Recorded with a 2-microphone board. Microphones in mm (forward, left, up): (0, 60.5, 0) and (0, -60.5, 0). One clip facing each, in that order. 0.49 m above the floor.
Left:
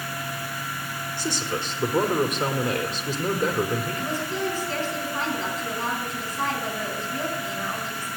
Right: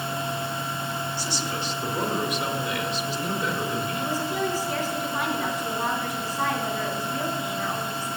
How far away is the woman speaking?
About 4 m.